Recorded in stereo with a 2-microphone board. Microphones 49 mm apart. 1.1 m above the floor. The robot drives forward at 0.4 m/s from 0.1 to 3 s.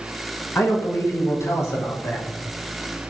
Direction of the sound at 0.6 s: 60° left (ahead or behind).